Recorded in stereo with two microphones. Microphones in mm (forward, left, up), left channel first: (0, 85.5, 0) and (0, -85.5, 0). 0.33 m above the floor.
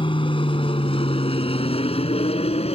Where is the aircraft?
30° left (ahead or behind); by 2.8 s 35° left (ahead or behind).